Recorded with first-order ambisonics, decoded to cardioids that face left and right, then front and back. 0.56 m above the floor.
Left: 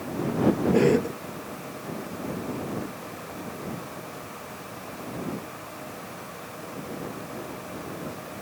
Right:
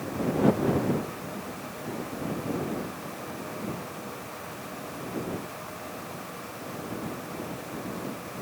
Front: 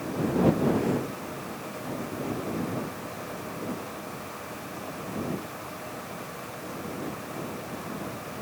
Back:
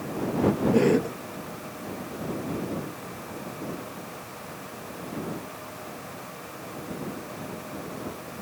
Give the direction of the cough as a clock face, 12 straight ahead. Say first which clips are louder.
Left 8 dB, back 6 dB; 8 o'clock.